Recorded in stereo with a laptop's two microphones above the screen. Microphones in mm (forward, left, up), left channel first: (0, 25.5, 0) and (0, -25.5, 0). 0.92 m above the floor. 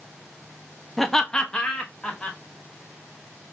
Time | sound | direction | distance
1.0 | laughter | 5° left (ahead or behind) | 0.5 m